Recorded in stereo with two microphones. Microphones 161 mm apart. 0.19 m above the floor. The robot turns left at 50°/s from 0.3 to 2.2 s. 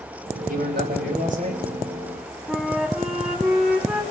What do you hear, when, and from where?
0.5 s a man speaking: 80° right, 8.5 m; by 1.6 s 140° right, 8.5 m
2.5 s a flute: 5° right (ahead or behind), 1.7 m